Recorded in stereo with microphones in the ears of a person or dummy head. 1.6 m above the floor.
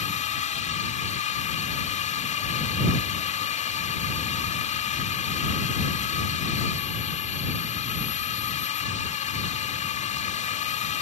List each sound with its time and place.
0.0 s a drone: 40° left (ahead or behind)